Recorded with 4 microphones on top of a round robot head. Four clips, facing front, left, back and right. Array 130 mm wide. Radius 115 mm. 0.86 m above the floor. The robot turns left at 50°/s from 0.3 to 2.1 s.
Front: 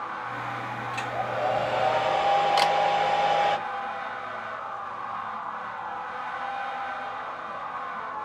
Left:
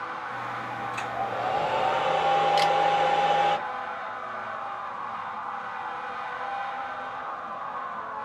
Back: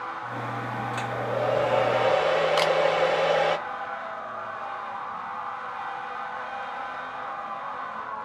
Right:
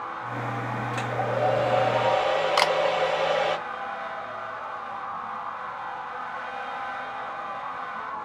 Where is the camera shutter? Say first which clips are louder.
Even, even; 90° right, 1.0 m.